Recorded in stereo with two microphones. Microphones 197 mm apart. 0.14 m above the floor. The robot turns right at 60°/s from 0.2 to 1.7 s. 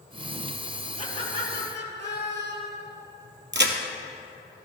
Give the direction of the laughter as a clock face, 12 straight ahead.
11 o'clock.